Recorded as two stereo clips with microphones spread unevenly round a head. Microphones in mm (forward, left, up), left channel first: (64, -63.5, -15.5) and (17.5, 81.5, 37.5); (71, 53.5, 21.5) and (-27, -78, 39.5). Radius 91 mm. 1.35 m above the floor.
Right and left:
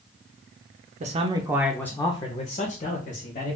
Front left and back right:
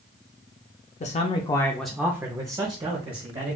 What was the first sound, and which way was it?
A man speaking, 60° left.